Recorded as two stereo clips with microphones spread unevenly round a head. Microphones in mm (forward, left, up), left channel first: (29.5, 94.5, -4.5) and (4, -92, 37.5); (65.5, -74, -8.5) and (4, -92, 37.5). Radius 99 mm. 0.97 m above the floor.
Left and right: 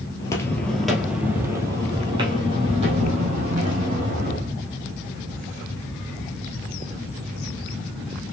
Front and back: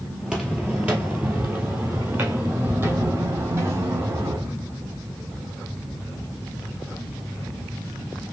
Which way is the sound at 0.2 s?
160° left.